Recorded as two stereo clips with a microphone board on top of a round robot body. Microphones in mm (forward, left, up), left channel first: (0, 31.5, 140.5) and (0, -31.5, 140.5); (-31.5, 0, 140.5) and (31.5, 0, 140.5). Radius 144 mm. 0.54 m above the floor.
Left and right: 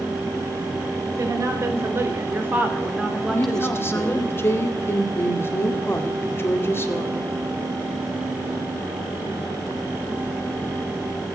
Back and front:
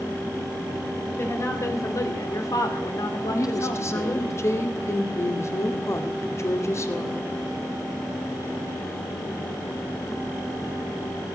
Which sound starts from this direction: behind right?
A woman speaking, at 1.1 s.